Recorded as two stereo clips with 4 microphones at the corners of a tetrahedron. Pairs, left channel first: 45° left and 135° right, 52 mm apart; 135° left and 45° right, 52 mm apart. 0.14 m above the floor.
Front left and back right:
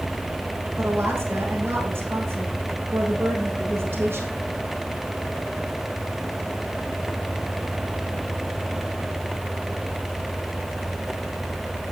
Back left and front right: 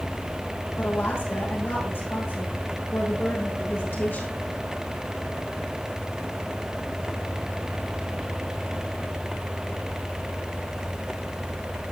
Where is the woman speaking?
175° left, 5.5 m.